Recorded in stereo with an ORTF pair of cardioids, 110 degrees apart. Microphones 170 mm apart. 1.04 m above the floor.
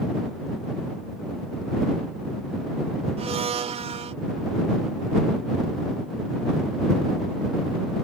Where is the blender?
40° right.